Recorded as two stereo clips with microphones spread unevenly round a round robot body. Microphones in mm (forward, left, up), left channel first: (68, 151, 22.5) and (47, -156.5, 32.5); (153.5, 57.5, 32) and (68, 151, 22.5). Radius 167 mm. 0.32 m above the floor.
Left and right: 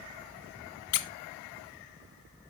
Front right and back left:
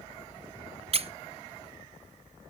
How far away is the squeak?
About 0.6 m.